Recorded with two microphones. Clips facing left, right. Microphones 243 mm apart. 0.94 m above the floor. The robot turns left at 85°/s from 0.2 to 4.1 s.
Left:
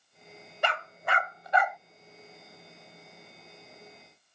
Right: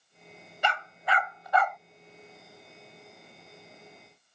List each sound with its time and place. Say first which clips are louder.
0.6 s a dog barking: even; 55° left (ahead or behind); by 1.8 s 5° left (ahead or behind)